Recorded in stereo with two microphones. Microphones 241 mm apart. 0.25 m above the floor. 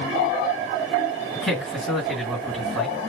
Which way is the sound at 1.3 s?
Centre (ahead or behind).